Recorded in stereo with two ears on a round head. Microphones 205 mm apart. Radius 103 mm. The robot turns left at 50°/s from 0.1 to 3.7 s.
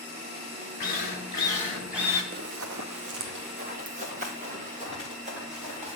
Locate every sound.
0.8 s a drill: 50° left, 2.5 m; by 2.2 s 20° right, 2.5 m
2.3 s running footsteps: 40° right (ahead or behind), 0.7 m; by 6.0 s 30° right (ahead or behind), 4.5 m